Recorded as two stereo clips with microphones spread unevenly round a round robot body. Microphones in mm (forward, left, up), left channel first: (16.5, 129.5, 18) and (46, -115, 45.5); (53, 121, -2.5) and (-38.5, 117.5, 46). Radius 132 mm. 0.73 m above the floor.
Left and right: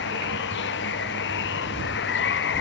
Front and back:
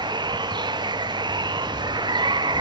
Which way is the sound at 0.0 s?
145° left.